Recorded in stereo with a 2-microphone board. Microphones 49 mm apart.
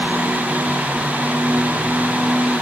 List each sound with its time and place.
Only background noise.